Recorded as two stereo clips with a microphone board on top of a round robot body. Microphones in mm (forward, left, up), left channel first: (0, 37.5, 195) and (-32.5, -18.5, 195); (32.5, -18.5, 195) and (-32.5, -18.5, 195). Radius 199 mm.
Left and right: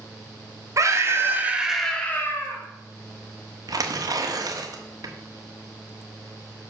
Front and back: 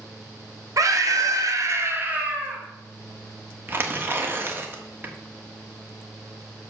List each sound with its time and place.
0.8 s a scream: 155° right, 2 m; by 2.6 s 100° left, 2.0 m
3.7 s tearing paper: 125° right, 1.4 m